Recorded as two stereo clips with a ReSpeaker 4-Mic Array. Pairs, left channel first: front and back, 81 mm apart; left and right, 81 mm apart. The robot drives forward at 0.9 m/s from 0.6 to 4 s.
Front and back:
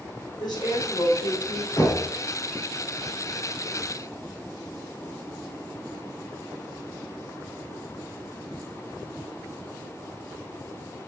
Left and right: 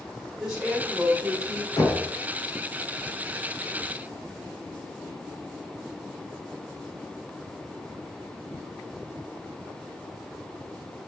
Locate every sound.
0.4 s a woman speaking: 5° right, 3 m
1.8 s knocking: 40° left, 1.9 m; by 2.0 s 45° left, 1.7 m